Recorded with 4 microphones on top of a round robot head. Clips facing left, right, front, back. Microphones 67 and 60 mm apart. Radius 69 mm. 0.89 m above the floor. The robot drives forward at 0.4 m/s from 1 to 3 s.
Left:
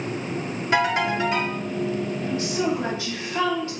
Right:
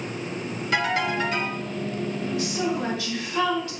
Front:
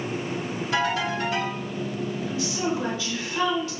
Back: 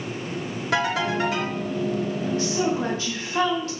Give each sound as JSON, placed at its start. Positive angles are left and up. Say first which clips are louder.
{"t": 0.7, "sound": "a ringtone", "louder": "left 3 dB, back 2 dB", "azimuth_deg": 155, "distance_m": 1.5}
{"t": 2.3, "sound": "a woman speaking", "louder": "left 2 dB, back 4 dB", "azimuth_deg": 140, "distance_m": 1.1}